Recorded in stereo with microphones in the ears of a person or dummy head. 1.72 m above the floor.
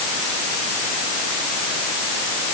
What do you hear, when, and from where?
Only background noise.